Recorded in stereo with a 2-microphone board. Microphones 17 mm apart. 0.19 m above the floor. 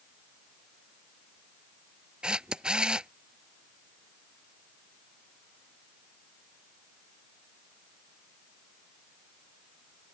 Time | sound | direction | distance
2.2 | a camera shutter | 70° right (ahead or behind) | ?